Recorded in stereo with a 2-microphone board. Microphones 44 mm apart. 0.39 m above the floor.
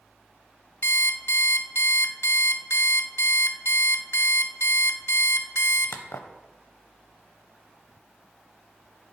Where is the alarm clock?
75° left (ahead or behind), 0.6 m.